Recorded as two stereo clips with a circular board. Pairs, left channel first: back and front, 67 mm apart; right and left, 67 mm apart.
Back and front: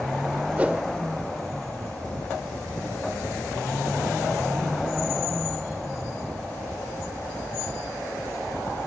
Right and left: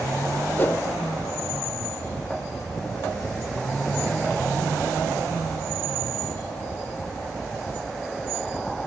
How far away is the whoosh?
About 0.8 m.